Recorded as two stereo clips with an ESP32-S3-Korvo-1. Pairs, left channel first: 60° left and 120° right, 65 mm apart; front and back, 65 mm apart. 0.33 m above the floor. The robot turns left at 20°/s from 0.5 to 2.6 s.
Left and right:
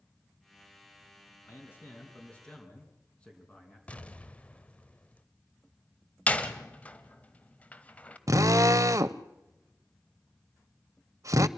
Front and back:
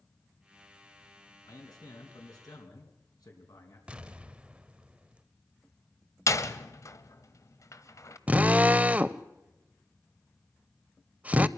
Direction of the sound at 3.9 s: 115° left.